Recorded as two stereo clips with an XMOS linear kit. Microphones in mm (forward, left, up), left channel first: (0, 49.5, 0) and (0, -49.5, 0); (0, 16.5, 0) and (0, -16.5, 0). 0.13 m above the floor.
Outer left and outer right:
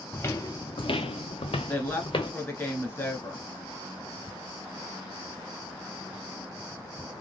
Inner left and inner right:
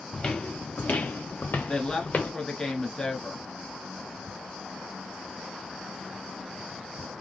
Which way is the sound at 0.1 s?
20° left (ahead or behind).